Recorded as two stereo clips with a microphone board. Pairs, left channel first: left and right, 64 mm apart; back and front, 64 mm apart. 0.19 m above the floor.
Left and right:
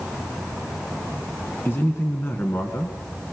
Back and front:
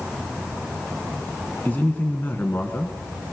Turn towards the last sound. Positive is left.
turn(degrees=130)